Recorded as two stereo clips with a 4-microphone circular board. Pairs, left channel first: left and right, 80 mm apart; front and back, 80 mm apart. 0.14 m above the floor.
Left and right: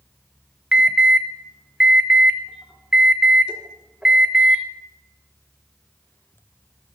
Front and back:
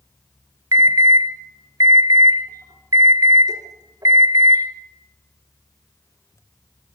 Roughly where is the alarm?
Behind.